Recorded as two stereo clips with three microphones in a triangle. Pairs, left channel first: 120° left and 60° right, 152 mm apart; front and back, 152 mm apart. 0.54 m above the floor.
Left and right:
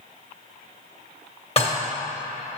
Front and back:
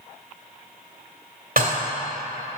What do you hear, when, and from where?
1.6 s dishes clattering: 165° left, 1.4 m